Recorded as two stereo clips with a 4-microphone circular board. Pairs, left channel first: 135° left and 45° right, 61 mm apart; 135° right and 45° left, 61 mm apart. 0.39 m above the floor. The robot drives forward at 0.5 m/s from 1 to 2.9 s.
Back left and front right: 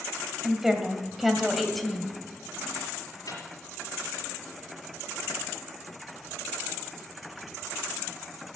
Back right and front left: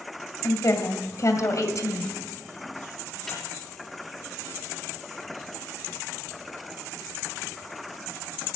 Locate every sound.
0.4 s a woman speaking: 130° right, 1.8 m; by 2.1 s 145° right, 2 m
3.3 s a microwave: 140° left, 4.5 m